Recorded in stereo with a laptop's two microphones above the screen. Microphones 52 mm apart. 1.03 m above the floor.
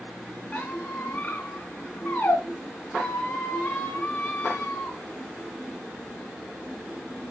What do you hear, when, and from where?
0.5 s a squeak: 40° left (ahead or behind), 2.5 m